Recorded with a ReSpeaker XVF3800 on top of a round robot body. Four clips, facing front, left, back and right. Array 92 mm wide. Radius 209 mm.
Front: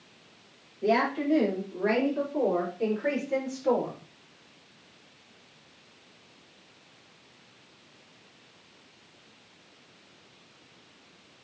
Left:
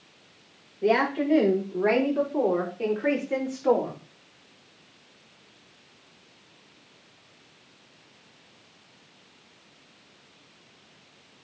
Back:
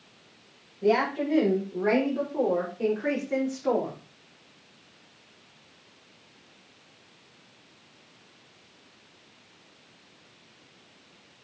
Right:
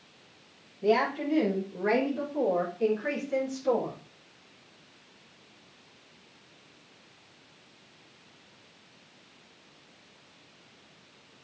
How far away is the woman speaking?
About 6 m.